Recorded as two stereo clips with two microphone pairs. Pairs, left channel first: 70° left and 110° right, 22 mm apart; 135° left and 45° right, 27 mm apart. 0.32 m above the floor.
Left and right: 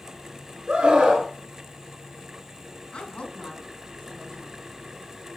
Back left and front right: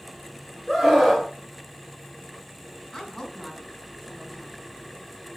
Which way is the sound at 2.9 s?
70° left.